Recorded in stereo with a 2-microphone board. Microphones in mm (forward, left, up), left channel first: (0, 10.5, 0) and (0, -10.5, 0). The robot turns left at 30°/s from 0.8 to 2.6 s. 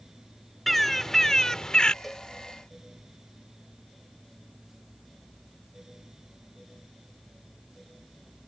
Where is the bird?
170° left; by 1.9 s 135° left.